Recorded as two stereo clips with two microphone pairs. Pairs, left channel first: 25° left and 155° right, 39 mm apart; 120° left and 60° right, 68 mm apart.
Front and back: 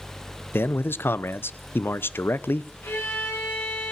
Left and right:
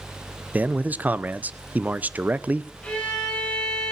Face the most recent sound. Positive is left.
turn(degrees=45)